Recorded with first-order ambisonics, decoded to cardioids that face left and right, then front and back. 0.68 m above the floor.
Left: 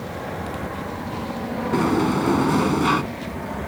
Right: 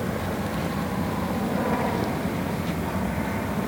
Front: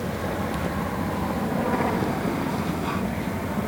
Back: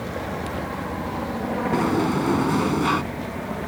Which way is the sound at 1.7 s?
120° left.